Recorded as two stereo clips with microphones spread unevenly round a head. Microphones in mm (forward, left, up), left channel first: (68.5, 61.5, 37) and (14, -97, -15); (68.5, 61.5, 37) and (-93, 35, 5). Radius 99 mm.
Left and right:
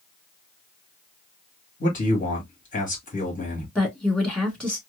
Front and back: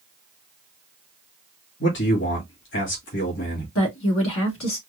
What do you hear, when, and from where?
1.8 s a man speaking: 20° left, 2 m
3.8 s a woman speaking: 15° right, 2 m